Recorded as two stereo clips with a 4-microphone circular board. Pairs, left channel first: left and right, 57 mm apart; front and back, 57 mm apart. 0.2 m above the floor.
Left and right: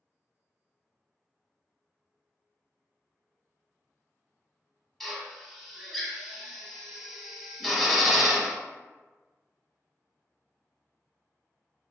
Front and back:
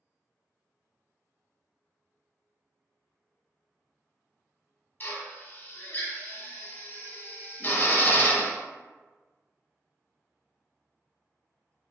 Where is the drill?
5° left, 0.5 m.